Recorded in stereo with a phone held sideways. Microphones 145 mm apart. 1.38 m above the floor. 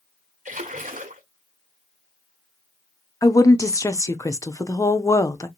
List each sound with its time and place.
0.5 s a splash: 65° right (ahead or behind), 1.7 m
3.2 s a woman speaking: 20° left (ahead or behind), 0.6 m